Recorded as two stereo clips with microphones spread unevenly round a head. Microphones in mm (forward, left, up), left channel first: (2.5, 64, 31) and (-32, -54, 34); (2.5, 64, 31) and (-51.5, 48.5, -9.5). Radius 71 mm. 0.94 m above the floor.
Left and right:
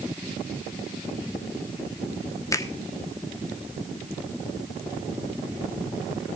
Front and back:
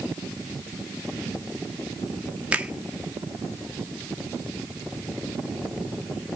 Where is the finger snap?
140° left, 1.8 m.